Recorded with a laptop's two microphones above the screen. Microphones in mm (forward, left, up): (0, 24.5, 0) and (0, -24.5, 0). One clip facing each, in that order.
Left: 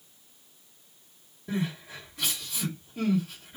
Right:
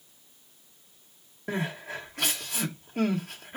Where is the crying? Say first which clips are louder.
Even; 55° right (ahead or behind), 1.3 m.